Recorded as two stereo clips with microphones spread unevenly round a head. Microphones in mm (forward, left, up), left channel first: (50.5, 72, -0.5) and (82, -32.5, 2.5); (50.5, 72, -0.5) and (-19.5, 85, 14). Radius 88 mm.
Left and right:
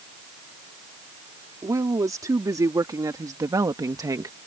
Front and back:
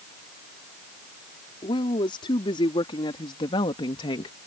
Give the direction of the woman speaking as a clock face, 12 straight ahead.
1 o'clock.